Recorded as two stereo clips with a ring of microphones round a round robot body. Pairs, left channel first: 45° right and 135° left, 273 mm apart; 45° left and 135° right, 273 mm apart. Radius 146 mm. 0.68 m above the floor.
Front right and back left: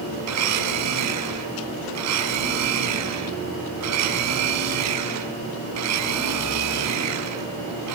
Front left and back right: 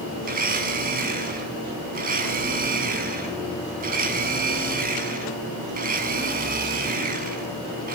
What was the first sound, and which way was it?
A blender, 165° left.